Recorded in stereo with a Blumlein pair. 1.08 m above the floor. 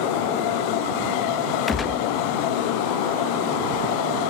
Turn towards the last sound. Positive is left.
turn(degrees=20)